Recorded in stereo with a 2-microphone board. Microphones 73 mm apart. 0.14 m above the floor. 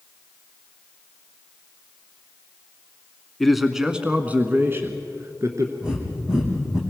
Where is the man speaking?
Centre (ahead or behind), 1.1 m; by 5.7 s 50° right (ahead or behind), 1.5 m.